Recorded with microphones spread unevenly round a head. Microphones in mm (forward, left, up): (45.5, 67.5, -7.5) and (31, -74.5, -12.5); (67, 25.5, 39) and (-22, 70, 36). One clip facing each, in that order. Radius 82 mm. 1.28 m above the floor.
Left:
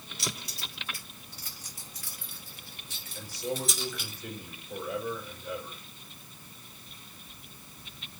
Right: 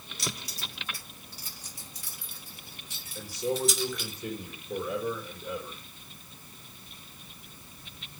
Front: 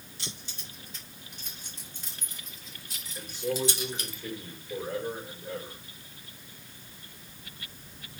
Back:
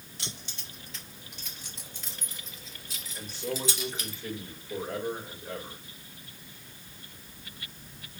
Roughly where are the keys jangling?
Behind right.